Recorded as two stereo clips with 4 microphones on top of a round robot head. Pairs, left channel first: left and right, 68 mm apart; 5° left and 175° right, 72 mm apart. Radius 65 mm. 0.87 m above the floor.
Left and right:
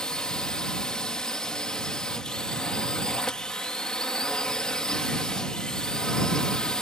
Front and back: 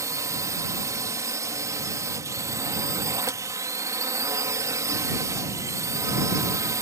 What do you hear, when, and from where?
0.0 s a drone: 170° left